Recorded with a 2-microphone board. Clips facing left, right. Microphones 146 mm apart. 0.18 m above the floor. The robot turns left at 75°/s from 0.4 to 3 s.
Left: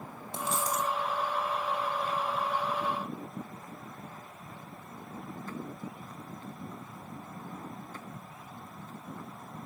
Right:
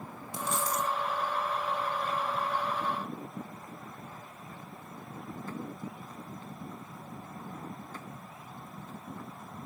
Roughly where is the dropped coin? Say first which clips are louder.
Even; left.